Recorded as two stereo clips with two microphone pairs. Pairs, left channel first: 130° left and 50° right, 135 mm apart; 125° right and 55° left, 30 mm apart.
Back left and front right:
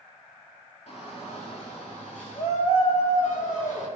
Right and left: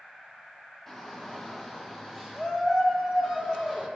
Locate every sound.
0.9 s a shout: 160° left, 3.5 m; by 3.9 s 140° left, 5.5 m